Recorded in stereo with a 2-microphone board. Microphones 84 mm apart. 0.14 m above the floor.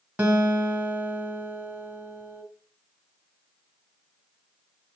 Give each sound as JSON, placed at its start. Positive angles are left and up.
{"t": 0.2, "sound": "a guitar", "side_deg": -15, "distance_m": 1.8}